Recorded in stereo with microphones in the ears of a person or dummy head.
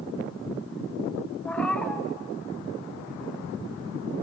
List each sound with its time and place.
1.4 s a cat meowing: 5° left (ahead or behind), 0.9 m